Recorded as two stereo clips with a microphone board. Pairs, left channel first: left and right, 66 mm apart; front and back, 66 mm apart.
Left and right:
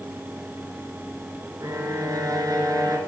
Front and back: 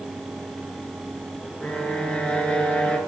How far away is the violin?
About 1.4 m.